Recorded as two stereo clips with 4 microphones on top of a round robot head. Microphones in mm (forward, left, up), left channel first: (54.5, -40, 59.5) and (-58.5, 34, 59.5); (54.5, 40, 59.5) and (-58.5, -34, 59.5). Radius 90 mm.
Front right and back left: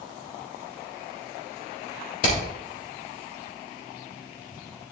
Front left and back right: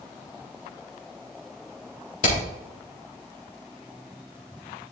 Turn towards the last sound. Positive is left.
turn(degrees=0)